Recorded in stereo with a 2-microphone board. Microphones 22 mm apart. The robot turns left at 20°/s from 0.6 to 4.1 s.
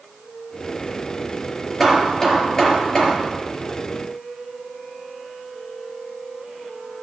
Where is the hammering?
15° left (ahead or behind), 4.5 m; by 3.2 s 45° left (ahead or behind), 4.5 m.